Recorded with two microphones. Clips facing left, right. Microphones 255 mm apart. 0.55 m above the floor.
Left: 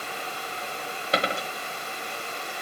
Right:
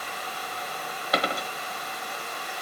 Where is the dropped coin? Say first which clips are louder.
Left 1 dB; 25° left (ahead or behind), 0.8 m.